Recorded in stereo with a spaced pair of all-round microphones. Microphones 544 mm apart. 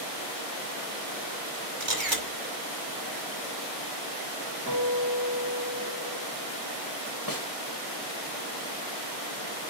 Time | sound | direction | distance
1.8 | a camera shutter | 55° right (ahead or behind) | 2 m
4.7 | a guitar | 30° right (ahead or behind) | 4 m
7.3 | a snare drum | 40° left (ahead or behind) | 1.9 m